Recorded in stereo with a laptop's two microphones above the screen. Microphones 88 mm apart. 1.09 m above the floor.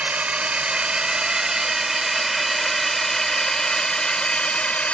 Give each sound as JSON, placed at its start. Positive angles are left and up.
{"t": 0.0, "sound": "a drone", "side_deg": -15}